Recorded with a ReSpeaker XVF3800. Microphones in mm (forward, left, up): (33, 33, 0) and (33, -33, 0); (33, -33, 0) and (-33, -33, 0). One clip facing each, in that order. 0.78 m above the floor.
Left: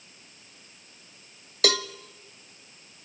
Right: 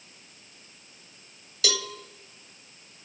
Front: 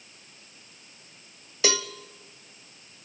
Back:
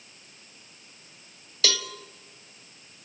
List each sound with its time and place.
1.6 s a cowbell: 65° left, 0.8 m